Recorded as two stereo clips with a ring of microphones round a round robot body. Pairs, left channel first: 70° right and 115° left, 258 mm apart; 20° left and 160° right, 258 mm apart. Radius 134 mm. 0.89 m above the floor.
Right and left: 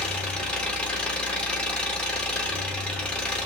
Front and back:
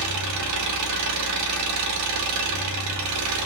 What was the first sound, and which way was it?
An engine running, 155° right.